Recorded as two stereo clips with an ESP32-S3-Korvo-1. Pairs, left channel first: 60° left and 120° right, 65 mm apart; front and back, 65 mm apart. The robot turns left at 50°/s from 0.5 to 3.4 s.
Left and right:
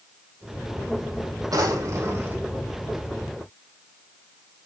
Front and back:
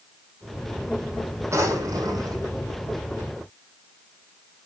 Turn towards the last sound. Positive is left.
turn(degrees=130)